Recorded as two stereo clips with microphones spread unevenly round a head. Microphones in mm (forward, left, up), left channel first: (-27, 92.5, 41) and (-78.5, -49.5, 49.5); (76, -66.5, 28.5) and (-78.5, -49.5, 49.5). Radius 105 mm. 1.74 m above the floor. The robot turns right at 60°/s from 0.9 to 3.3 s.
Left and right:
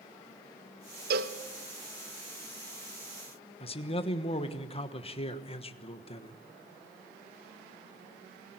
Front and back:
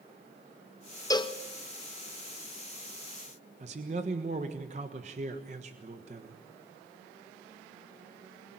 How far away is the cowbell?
About 0.8 m.